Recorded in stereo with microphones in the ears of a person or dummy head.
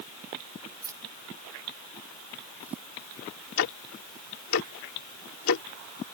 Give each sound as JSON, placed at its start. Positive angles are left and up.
{"t": 0.8, "sound": "keys jangling", "side_deg": -15}
{"t": 3.6, "sound": "ticking", "side_deg": 80}